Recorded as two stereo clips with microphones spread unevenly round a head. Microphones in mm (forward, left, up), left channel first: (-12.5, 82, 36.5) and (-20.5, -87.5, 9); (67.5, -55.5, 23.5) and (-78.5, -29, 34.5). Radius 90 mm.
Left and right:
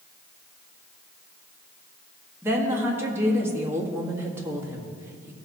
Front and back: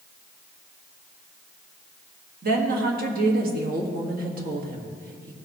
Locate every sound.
2.4 s a woman speaking: 170° right, 1.6 m